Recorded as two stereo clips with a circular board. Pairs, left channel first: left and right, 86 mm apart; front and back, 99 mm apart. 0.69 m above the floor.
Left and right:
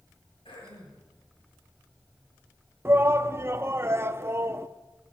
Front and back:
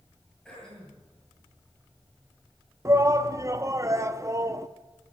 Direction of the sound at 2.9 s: 140° right.